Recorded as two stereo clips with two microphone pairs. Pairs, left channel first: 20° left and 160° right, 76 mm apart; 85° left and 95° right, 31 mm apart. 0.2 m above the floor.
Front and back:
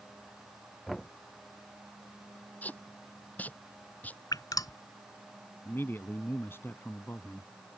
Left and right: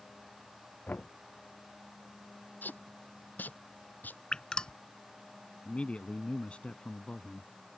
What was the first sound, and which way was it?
Knocking, 105° left.